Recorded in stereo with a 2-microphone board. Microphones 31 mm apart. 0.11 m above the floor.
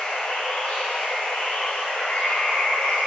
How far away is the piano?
No piano in this recording.